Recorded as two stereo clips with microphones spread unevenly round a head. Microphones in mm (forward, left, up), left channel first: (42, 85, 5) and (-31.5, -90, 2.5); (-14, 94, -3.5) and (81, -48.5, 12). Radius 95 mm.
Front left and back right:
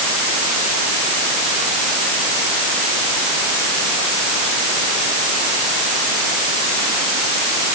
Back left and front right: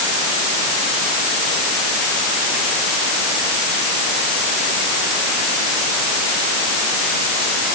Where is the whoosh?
I don't hear a whoosh.